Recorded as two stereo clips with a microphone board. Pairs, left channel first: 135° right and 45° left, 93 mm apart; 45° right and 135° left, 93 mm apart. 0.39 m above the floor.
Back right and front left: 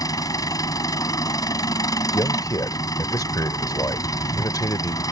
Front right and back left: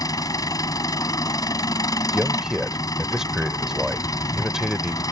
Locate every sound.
0.0 s an engine running: 90° right
2.1 s a man speaking: 145° right